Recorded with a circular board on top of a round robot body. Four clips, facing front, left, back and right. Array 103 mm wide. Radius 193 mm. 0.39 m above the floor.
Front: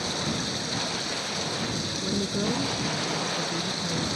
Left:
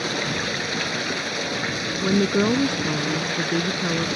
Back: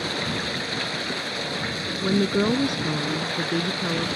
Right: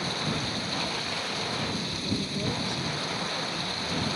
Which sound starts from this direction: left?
Running water, at 0.0 s.